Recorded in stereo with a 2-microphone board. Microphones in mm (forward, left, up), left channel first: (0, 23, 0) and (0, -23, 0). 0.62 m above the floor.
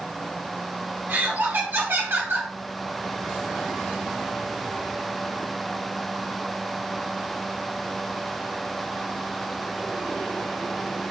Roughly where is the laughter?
Right.